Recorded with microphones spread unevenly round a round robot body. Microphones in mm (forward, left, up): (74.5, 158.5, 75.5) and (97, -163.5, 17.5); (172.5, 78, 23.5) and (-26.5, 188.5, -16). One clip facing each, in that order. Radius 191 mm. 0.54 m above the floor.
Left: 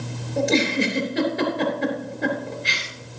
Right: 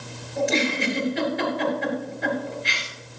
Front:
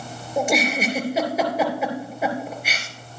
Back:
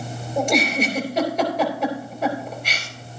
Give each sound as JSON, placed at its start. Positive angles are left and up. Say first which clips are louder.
{"t": 0.4, "sound": "a giggle", "louder": "left 3 dB, back 1 dB", "azimuth_deg": 55, "distance_m": 4.0}